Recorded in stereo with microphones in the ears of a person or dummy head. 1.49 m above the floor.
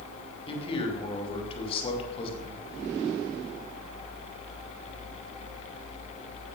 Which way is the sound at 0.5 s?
30° left (ahead or behind).